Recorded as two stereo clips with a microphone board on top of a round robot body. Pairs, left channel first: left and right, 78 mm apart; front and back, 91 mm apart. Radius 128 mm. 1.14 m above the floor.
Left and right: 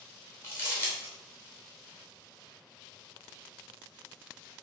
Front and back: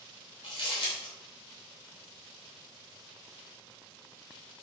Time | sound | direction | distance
0.4 | crumpling | 30° left | 0.7 m